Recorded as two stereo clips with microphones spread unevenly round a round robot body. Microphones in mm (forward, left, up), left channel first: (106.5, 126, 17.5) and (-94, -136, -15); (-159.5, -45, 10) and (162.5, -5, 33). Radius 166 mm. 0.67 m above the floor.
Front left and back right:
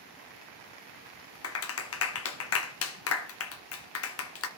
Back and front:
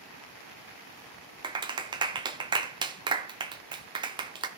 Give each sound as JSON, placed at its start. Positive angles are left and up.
{"t": 1.4, "sound": "a clap", "azimuth_deg": 80, "distance_m": 0.6}